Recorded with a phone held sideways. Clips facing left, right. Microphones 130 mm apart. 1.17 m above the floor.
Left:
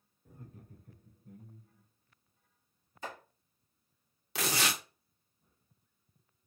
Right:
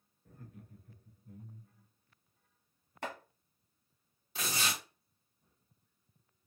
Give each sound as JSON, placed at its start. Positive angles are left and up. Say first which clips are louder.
{"t": 0.2, "sound": "laughter", "louder": "left 1 dB", "side_deg": 10, "distance_m": 0.7}
{"t": 3.0, "sound": "chopping", "louder": "right 2 dB", "side_deg": -70, "distance_m": 1.0}
{"t": 4.3, "sound": "tearing paper", "louder": "left 4 dB", "side_deg": 85, "distance_m": 0.6}